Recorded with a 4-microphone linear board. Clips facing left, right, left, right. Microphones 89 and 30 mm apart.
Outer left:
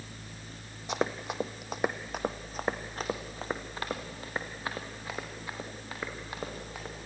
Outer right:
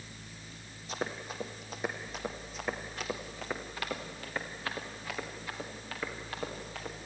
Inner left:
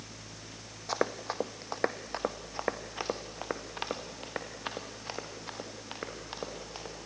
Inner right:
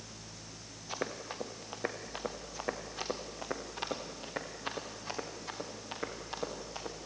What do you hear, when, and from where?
0.9 s running footsteps: 70° left (ahead or behind), 1.5 m; by 6.9 s 15° left (ahead or behind), 5.5 m